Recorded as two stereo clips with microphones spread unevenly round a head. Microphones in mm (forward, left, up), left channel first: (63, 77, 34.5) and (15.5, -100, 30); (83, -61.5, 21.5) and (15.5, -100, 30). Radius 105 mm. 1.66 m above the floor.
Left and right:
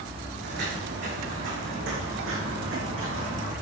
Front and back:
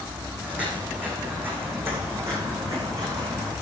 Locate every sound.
0.4 s footsteps: 80° right, 5 m; by 3.5 s 105° right, 6 m